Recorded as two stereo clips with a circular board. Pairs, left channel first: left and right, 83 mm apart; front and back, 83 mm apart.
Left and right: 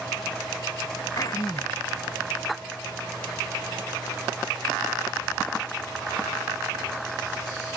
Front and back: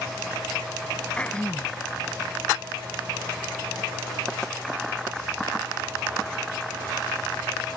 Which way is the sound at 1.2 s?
70° left.